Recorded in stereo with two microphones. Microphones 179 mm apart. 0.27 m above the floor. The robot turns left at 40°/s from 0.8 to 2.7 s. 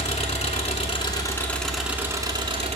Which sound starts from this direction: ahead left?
An engine running, at 0.0 s.